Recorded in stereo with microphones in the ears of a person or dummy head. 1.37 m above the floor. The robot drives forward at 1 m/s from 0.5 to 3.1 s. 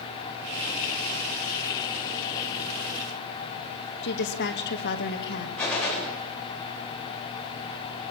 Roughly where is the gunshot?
Centre.